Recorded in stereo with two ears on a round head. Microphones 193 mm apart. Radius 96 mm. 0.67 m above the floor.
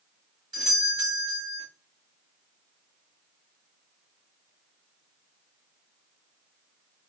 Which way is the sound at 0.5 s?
20° right (ahead or behind).